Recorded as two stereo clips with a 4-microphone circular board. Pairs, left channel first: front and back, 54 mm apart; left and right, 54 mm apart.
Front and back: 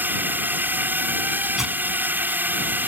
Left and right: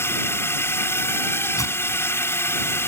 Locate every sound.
0.0 s a drone: 130° left
1.6 s tearing paper: 100° left